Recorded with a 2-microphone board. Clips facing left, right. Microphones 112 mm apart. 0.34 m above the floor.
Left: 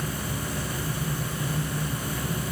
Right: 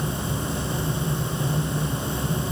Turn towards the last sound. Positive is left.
No sound to turn to.